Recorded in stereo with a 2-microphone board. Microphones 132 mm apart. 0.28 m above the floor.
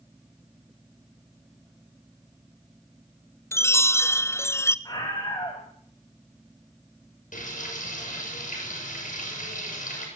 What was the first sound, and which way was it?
A chime, 20° left (ahead or behind).